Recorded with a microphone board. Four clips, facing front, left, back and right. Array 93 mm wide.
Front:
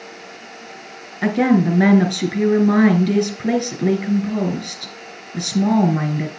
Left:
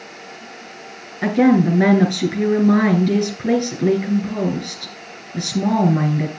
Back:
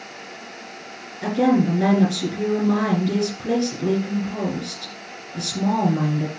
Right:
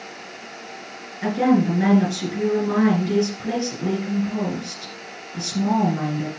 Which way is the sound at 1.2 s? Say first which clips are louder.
Left 4 dB, front 2 dB; 30° left.